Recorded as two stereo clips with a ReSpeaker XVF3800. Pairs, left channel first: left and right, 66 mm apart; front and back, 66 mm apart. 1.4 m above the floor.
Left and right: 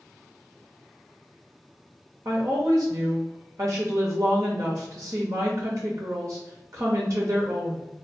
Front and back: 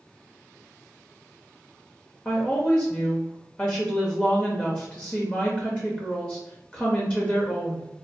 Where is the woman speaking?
65° right, 0.6 m.